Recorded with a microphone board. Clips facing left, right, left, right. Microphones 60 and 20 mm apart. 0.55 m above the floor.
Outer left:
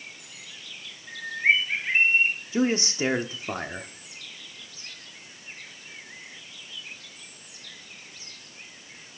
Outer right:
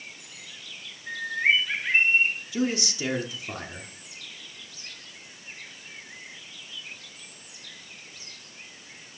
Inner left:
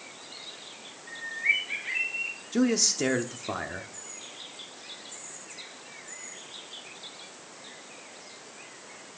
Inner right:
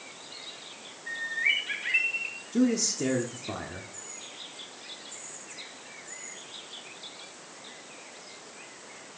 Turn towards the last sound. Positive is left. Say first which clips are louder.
# outer left 5 dB, inner left 1 dB
turn(degrees=35)  # may be behind; listen again after turning